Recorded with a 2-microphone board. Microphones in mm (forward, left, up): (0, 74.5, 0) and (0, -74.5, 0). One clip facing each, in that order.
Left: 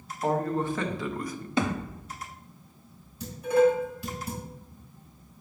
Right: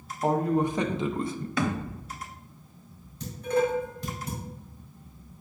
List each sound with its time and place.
0.2 s a man speaking: 10° right (ahead or behind), 1.1 m; by 1.5 s 30° right (ahead or behind), 0.5 m
1.6 s a thud: 25° left (ahead or behind), 0.7 m
3.2 s dishes clattering: 5° left (ahead or behind), 3 m